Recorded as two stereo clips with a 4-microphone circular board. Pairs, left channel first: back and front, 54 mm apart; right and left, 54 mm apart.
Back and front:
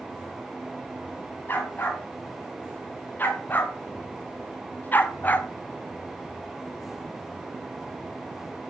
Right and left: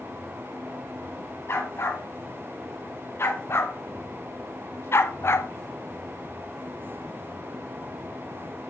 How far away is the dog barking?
About 3 m.